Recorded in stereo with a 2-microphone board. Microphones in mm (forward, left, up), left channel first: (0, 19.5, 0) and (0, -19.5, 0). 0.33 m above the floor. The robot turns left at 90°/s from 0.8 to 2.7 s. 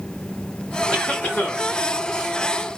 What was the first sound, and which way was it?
A cough, 160° left.